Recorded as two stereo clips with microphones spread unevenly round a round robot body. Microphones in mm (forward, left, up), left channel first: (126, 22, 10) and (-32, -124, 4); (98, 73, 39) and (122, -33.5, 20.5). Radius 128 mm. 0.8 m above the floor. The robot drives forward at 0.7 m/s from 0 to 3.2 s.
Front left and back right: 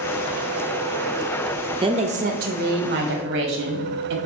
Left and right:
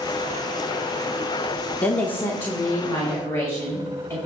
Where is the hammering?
I don't hear hammering.